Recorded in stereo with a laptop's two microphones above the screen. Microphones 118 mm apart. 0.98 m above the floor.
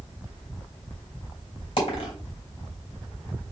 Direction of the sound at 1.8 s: 50° left (ahead or behind).